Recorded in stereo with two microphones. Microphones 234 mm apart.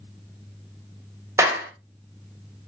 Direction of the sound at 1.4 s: 10° right (ahead or behind).